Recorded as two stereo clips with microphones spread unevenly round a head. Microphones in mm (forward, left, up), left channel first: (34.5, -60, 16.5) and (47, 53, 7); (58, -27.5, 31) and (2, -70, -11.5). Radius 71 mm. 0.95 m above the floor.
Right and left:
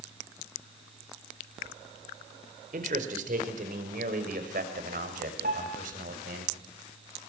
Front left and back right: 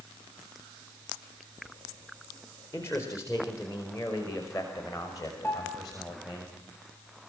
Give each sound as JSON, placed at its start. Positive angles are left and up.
{"t": 2.7, "sound": "a man speaking", "azimuth_deg": 115, "distance_m": 4.5}
{"t": 5.4, "sound": "a piano", "azimuth_deg": 105, "distance_m": 4.0}